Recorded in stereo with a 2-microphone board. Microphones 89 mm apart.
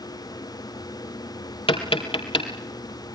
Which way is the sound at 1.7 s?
85° left.